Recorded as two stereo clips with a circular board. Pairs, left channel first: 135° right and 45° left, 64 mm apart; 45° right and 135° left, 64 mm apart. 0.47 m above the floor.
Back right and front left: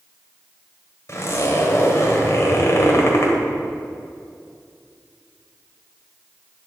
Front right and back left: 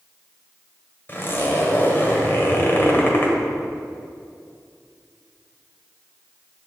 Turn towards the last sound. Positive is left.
turn(degrees=-95)